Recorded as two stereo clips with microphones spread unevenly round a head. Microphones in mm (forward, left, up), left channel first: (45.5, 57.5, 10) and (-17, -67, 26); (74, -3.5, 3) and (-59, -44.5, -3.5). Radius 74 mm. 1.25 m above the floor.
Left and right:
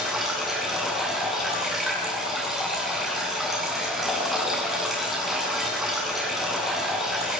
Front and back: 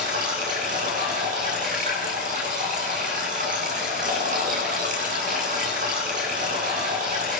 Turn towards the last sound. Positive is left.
turn(degrees=155)